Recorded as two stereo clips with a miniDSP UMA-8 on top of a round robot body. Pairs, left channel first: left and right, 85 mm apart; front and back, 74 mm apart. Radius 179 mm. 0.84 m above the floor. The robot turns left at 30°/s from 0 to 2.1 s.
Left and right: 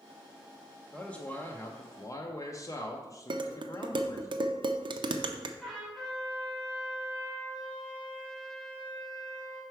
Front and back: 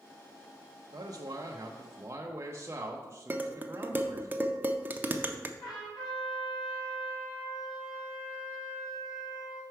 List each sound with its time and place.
0.9 s a man speaking: 170° left, 0.7 m; by 4.3 s 130° left, 0.7 m
3.3 s dishes clattering: 115° right, 0.5 m
5.6 s a trumpet: 5° left, 3 m